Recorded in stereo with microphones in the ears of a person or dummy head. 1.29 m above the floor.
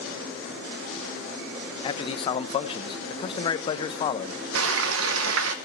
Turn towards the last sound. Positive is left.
turn(degrees=-85)